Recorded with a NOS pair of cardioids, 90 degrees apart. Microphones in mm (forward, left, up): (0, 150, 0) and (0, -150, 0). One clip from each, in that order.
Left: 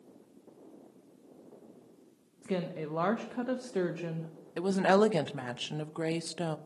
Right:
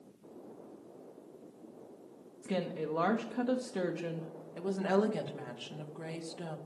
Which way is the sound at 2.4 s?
10° left.